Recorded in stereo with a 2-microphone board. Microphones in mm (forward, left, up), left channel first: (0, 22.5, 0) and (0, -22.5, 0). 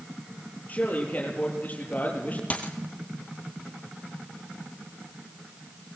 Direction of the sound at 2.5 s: 30° left (ahead or behind).